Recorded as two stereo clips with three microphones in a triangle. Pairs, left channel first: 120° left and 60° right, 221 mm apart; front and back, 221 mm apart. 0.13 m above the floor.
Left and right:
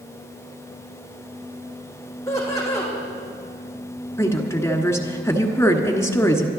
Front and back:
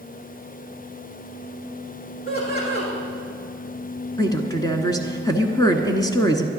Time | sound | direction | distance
2.3 | laughter | 45° left | 6 m
4.2 | a woman speaking | 55° left | 1.3 m